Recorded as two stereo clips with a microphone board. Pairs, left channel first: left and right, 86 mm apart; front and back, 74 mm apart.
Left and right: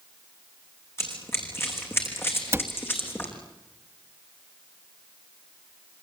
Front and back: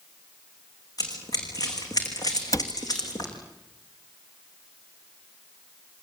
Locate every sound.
1.0 s running footsteps: 30° left, 7 m; by 3.3 s 25° left, 5 m
2.5 s a cupboard door: 35° right, 1.2 m